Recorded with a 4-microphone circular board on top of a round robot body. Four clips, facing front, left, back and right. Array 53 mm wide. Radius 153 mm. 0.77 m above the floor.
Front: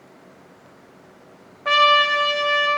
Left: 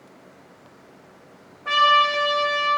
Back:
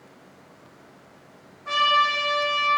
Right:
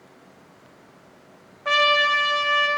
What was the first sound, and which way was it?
A trumpet, 30° right.